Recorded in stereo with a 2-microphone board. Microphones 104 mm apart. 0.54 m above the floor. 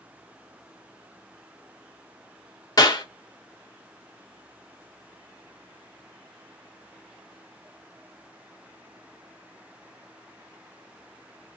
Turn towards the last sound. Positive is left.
turn(degrees=40)  # may be behind; listen again after turning